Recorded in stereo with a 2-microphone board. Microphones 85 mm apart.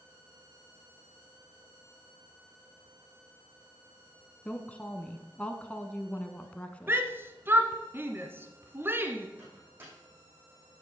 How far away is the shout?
About 1.2 m.